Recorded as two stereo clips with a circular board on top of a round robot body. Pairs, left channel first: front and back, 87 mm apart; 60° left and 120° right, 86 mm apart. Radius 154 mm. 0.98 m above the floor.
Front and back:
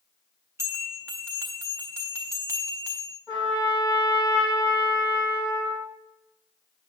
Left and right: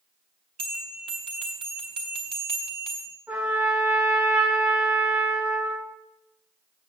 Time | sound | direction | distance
0.6 | a bell | 120° right | 0.5 m
3.3 | a trumpet | 50° right | 3.5 m